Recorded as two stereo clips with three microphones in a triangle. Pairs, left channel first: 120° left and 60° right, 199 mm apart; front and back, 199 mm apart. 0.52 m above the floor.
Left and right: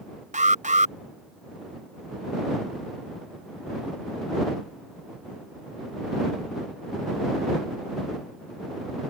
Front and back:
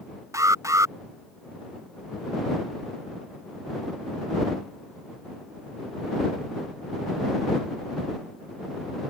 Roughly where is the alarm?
Right.